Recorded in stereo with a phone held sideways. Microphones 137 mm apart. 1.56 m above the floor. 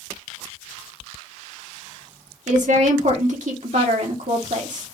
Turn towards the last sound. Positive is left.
turn(degrees=-65)  # may be behind; listen again after turning